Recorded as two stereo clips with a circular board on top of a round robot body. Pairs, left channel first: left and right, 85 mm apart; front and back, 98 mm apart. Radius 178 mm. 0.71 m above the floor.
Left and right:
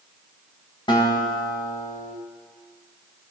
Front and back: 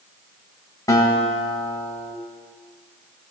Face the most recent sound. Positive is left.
turn(degrees=60)